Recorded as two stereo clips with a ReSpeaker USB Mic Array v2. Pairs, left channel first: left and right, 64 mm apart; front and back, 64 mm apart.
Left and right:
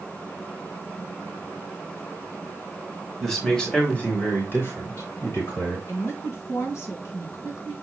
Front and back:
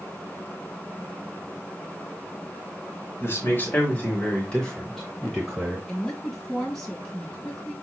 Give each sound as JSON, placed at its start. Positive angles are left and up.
{"t": 3.2, "sound": "a man speaking", "azimuth_deg": 5, "distance_m": 1.7}
{"t": 5.9, "sound": "a woman speaking", "azimuth_deg": 80, "distance_m": 2.0}